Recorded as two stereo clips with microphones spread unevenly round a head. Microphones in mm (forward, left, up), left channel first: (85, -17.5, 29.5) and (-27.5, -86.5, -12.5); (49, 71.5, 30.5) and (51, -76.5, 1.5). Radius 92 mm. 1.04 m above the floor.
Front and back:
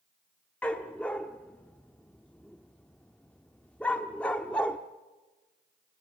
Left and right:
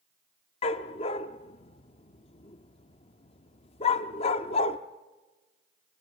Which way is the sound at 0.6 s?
95° left.